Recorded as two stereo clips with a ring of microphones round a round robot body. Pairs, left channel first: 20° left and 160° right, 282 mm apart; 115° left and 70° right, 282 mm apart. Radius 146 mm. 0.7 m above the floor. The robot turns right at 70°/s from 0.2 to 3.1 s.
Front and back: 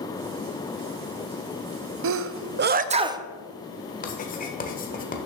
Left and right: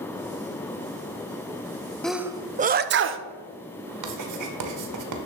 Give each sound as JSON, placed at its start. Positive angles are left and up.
{"t": 2.0, "sound": "a sneeze", "azimuth_deg": -160, "distance_m": 0.6}
{"t": 4.0, "sound": "writing", "azimuth_deg": -40, "distance_m": 1.3}